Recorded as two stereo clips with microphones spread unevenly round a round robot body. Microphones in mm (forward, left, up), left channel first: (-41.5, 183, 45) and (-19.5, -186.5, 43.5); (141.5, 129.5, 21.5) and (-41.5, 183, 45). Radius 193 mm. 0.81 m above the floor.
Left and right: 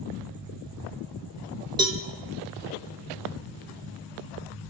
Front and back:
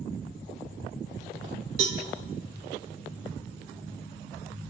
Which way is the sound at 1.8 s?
165° right.